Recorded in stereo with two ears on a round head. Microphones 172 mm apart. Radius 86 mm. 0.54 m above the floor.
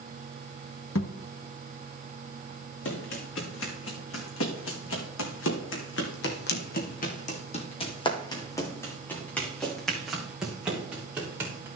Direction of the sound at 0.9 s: 75° left (ahead or behind).